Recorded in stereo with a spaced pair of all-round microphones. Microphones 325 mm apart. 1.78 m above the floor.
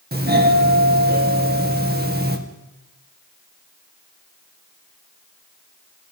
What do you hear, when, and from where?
0.1 s a doorbell: 30° right (ahead or behind), 2 m